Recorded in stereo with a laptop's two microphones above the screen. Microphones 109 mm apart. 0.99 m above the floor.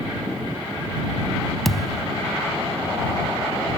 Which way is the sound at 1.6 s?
Centre (ahead or behind).